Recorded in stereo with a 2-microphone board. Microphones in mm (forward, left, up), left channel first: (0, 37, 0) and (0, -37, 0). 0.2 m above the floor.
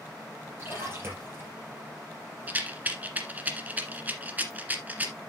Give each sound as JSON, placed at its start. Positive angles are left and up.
{"t": 0.6, "sound": "a splash", "side_deg": -30, "distance_m": 5.0}
{"t": 2.5, "sound": "a rattle", "side_deg": -20, "distance_m": 1.5}